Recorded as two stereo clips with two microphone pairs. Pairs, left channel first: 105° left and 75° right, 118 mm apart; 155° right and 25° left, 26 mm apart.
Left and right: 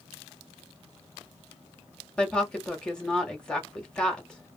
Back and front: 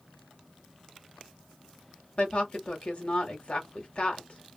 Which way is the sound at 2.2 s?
175° right.